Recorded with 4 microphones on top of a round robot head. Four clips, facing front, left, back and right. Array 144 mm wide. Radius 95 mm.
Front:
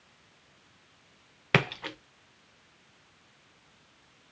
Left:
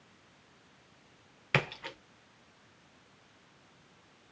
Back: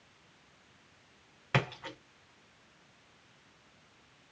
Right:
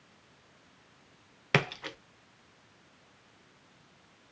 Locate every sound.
1.5 s a splash: 20° right, 0.5 m